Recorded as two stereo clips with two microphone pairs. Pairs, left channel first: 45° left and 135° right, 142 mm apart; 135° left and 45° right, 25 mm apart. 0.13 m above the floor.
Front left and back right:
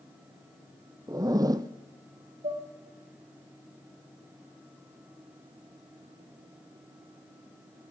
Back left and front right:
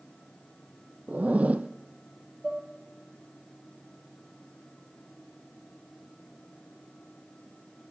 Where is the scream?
I don't hear a scream.